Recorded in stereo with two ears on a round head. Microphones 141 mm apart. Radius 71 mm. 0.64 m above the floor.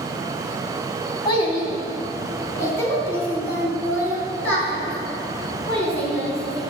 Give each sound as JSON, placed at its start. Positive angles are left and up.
{"t": 1.2, "sound": "a child speaking", "side_deg": 30, "distance_m": 2.5}